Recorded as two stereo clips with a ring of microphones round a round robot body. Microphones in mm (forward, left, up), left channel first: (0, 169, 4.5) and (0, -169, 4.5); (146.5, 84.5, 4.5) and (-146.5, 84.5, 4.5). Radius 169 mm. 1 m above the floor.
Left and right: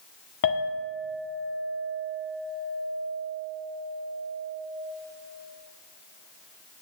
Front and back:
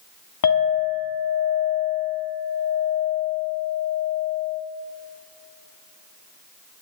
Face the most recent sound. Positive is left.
turn(degrees=30)